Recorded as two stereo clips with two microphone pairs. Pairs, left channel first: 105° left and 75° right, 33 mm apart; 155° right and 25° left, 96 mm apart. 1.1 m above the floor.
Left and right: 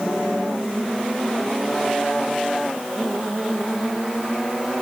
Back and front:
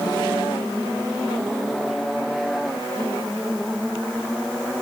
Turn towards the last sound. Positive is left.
No sound to turn to.